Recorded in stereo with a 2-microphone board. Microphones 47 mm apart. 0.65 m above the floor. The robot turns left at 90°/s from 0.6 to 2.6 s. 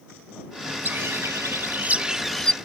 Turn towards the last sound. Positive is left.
turn(degrees=155)